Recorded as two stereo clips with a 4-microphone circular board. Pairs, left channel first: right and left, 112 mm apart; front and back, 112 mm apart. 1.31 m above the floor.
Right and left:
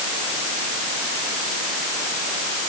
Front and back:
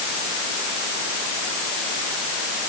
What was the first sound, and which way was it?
Only background noise.